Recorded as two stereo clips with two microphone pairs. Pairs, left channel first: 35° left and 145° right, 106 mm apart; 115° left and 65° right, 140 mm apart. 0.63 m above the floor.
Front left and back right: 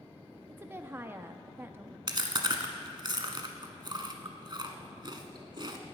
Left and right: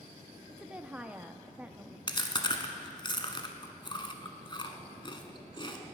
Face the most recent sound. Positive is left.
turn(degrees=170)